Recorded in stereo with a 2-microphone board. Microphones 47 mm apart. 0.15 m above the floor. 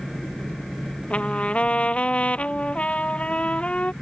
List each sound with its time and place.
0.0 s a helicopter: 25° left (ahead or behind)
1.1 s a trumpet: 25° left (ahead or behind)